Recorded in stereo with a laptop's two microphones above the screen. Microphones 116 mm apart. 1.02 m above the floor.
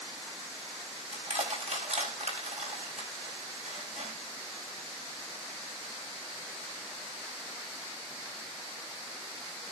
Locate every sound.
1.1 s crushing: 70° right (ahead or behind), 4.5 m